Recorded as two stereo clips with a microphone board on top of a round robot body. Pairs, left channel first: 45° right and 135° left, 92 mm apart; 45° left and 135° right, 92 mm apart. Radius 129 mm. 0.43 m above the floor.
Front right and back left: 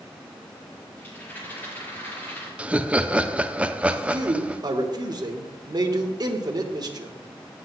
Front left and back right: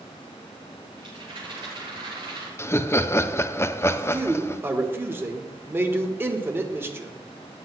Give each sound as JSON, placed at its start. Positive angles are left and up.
{"t": 1.0, "sound": "a rattle", "azimuth_deg": -115, "distance_m": 5.5}
{"t": 2.6, "sound": "laughter", "azimuth_deg": 70, "distance_m": 0.8}
{"t": 3.9, "sound": "a man speaking", "azimuth_deg": 165, "distance_m": 1.6}